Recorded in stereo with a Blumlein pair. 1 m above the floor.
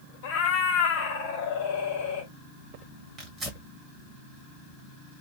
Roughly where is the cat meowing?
Ahead left.